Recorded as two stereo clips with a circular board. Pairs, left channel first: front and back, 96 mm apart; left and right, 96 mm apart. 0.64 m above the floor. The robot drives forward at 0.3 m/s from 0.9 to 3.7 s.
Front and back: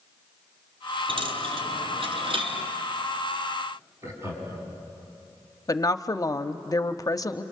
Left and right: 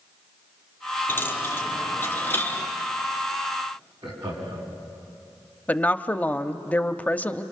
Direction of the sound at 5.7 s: 25° left.